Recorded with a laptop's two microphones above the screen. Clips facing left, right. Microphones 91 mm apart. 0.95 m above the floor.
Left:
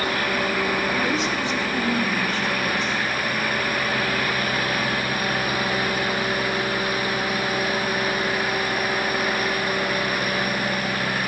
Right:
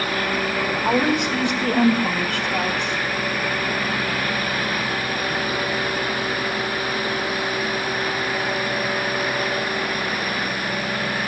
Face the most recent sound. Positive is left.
turn(degrees=-75)  # may be behind; listen again after turning